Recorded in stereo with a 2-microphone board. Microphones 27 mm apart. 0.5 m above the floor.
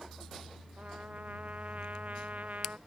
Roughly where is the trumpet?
Right.